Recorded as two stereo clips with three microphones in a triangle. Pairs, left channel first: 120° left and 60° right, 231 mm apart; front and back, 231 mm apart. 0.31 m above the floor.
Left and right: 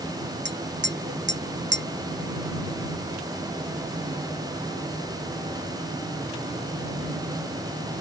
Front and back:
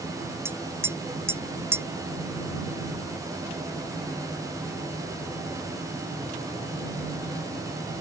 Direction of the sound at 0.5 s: 100° right.